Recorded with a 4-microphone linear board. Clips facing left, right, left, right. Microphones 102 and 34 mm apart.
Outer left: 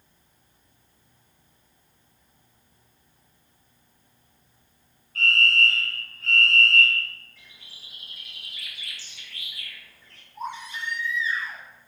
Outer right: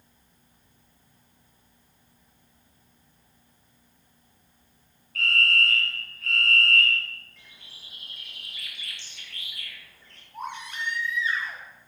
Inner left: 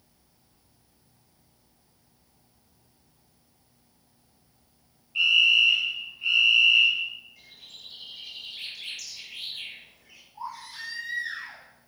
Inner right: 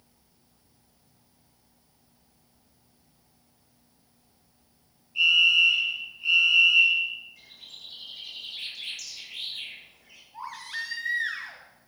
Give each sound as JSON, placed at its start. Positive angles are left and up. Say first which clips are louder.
{"t": 5.2, "sound": "a fire alarm", "louder": "outer left 2 dB, even", "side_deg": 30, "distance_m": 6.0}
{"t": 7.4, "sound": "a bird", "louder": "even, inner right 1 dB", "side_deg": 0, "distance_m": 4.0}
{"t": 10.3, "sound": "a baby crying", "louder": "outer left 1 dB, inner right 3 dB", "side_deg": -60, "distance_m": 4.5}